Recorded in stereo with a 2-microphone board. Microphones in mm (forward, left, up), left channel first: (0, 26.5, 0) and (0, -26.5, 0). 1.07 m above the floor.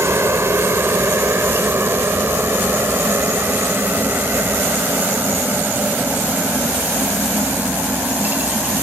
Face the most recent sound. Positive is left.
turn(degrees=-30)  # may be behind; listen again after turning